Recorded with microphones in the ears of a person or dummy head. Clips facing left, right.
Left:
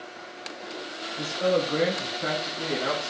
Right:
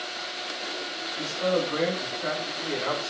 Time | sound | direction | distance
1.2 | a man speaking | 20° left (ahead or behind) | 0.6 m